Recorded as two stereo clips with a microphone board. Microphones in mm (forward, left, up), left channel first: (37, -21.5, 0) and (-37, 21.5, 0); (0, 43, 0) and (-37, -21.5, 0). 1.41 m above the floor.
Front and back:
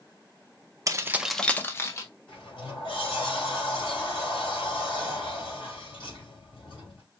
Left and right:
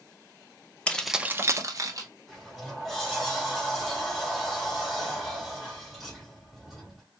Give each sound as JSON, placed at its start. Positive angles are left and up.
{"t": 0.9, "sound": "keys jangling", "azimuth_deg": 125, "distance_m": 0.6}
{"t": 2.3, "sound": "a sliding door", "azimuth_deg": -30, "distance_m": 2.5}